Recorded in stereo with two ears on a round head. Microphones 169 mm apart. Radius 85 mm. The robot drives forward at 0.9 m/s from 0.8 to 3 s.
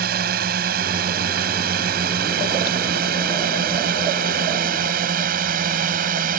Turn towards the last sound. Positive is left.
turn(degrees=-45)  # may be behind; listen again after turning